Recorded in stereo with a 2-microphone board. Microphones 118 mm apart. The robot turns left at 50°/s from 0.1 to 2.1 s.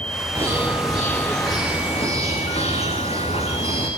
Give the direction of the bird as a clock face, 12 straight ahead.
5 o'clock.